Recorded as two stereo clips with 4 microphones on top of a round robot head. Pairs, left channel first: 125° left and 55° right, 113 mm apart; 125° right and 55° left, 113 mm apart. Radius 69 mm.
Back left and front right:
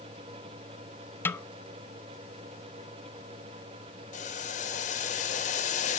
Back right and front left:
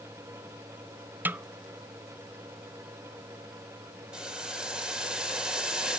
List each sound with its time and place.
1.2 s a snare drum: 95° left, 0.6 m
4.1 s boiling: 140° left, 2.5 m